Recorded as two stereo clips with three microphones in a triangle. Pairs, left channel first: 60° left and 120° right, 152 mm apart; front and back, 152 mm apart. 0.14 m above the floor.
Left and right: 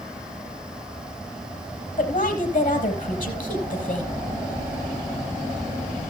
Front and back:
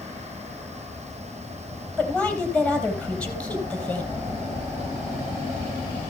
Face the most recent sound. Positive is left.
turn(degrees=85)